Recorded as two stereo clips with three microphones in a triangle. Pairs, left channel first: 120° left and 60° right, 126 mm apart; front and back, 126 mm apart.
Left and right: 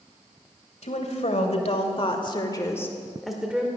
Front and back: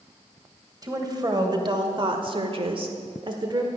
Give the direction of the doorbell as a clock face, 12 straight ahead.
No doorbell in this recording.